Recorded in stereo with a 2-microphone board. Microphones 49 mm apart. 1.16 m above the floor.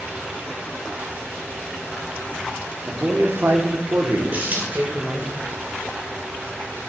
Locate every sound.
2.9 s a man speaking: 40° right (ahead or behind), 0.9 m; by 5.3 s 55° right (ahead or behind), 1.7 m
4.3 s a dropped coin: 35° right (ahead or behind), 3 m